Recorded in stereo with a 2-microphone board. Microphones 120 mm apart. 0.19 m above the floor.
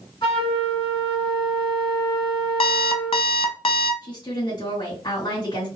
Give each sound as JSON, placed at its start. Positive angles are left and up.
{"t": 0.2, "sound": "a flute", "side_deg": 40, "distance_m": 1.4}
{"t": 2.6, "sound": "an alarm clock", "side_deg": 50, "distance_m": 0.5}
{"t": 4.0, "sound": "a woman speaking", "side_deg": 40, "distance_m": 2.0}